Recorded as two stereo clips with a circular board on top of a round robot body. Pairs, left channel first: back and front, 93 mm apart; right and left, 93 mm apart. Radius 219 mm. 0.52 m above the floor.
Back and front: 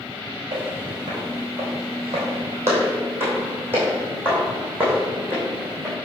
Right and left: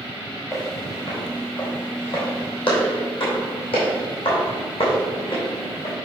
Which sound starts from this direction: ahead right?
Footsteps, at 0.5 s.